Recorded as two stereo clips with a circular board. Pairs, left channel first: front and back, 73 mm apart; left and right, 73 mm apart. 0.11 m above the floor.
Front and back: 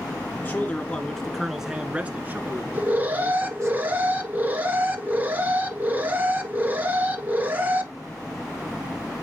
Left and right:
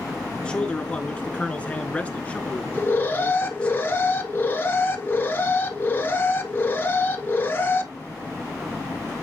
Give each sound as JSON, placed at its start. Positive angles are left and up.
{"t": 0.4, "sound": "a man speaking", "azimuth_deg": 25, "distance_m": 1.5}
{"t": 2.7, "sound": "an alarm", "azimuth_deg": 135, "distance_m": 1.6}